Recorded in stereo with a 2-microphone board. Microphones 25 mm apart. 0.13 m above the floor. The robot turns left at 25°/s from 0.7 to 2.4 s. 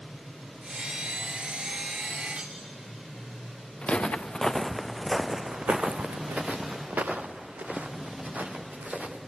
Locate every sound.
2.4 s cutlery clinking: 75° right (ahead or behind), 7.5 m; by 2.6 s 70° right (ahead or behind), 7.5 m
3.8 s footsteps: 50° left (ahead or behind), 0.9 m; by 9.2 s 85° right, 2 m